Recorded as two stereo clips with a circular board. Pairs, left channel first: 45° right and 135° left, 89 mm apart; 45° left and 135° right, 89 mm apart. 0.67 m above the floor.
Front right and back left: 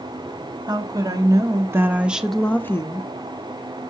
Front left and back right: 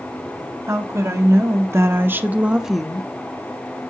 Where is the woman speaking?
170° left, 1.2 m; by 3.1 s 35° right, 0.6 m.